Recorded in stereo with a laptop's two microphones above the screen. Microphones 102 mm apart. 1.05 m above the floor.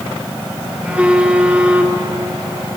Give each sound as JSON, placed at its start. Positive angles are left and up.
{"t": 0.8, "sound": "a phone buzzing", "side_deg": -10, "distance_m": 1.5}